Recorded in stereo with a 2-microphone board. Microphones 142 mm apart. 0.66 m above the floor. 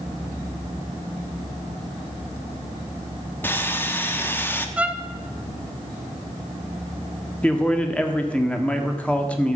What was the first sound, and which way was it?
Sawing, 15° left (ahead or behind).